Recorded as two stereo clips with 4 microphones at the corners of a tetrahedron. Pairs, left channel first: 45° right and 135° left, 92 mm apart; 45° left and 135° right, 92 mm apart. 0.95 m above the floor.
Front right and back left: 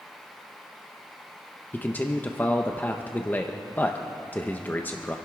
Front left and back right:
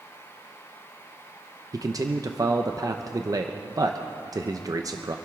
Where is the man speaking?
105° right, 0.7 m.